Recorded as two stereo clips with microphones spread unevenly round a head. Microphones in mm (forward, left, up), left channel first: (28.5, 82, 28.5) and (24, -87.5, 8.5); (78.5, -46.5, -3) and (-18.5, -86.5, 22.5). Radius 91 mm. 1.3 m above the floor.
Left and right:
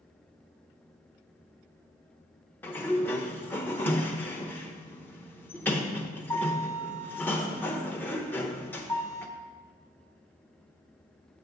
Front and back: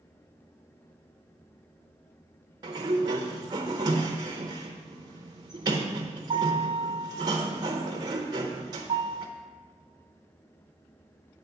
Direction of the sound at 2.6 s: 160° left.